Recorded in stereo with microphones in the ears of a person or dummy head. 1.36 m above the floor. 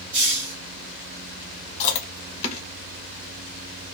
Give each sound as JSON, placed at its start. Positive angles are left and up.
{"t": 0.1, "sound": "a hiss", "side_deg": -55, "distance_m": 1.5}
{"t": 1.8, "sound": "chewing", "side_deg": 35, "distance_m": 0.9}